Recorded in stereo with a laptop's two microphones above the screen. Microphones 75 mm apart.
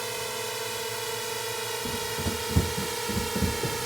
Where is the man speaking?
I don't hear a man speaking.